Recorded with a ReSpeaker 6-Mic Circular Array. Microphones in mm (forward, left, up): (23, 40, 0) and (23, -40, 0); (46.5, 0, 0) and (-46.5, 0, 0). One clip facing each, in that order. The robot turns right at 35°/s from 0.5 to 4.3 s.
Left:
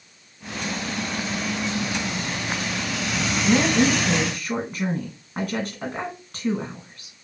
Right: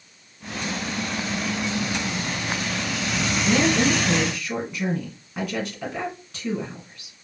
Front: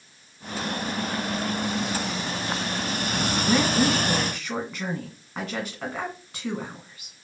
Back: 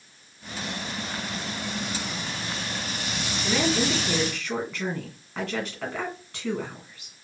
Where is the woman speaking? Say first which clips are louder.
Left 1 dB, front 2 dB; 45° left, 2.0 m; by 7.2 s 75° left, 2.0 m.